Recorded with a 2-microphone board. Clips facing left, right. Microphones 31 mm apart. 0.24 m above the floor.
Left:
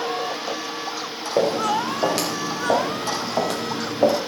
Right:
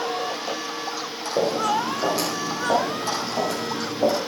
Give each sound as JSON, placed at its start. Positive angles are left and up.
{"t": 1.4, "sound": "footsteps", "side_deg": 75, "distance_m": 4.0}